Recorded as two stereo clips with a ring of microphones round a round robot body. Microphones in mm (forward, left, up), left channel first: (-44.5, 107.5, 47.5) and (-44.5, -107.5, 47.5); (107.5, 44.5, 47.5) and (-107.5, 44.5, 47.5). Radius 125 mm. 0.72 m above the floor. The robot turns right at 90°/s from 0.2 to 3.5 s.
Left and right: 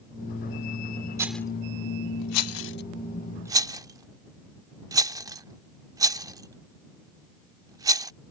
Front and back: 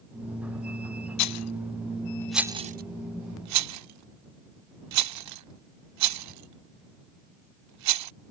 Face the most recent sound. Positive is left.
turn(degrees=-165)